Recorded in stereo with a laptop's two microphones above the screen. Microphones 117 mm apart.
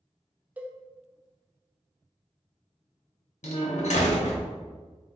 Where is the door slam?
80° left, 0.9 m.